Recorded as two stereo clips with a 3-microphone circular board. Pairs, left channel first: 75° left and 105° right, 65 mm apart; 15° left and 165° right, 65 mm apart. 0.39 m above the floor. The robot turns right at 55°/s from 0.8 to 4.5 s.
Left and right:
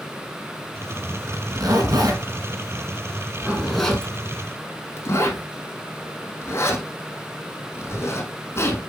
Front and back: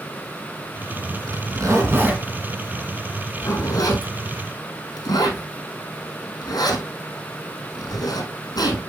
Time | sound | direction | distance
1.3 | a zipper | 150° right | 3 m